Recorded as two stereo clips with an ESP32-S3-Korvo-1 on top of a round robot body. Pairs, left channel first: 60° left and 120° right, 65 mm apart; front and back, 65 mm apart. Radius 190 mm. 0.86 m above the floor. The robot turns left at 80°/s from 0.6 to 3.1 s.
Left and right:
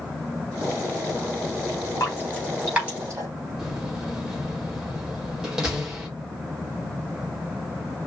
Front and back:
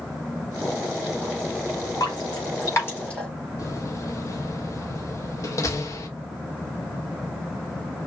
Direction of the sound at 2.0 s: 15° left.